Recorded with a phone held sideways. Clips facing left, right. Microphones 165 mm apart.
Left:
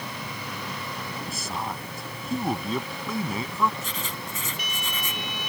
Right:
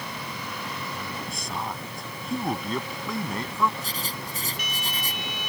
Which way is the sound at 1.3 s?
Centre (ahead or behind).